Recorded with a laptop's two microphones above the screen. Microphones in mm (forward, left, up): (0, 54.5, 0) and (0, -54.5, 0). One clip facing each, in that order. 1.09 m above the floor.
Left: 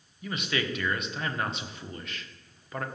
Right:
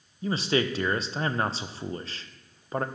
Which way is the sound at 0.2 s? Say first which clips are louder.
Right 6 dB; 30° right (ahead or behind).